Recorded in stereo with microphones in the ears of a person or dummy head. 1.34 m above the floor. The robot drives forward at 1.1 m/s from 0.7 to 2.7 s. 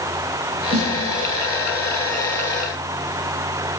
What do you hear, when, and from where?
0.7 s a snare drum: 45° right (ahead or behind), 9.5 m